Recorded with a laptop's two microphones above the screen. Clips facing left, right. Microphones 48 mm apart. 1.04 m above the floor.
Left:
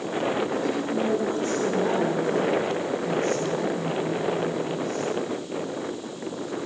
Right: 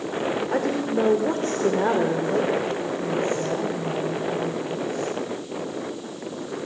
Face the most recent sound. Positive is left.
turn(degrees=-10)  # may be behind; listen again after turning